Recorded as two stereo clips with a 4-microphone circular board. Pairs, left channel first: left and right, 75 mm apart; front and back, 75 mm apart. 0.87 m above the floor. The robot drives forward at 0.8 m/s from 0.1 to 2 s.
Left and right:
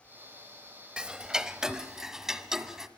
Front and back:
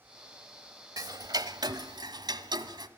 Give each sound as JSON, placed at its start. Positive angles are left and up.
{"t": 1.0, "sound": "ticking", "azimuth_deg": -165, "distance_m": 0.9}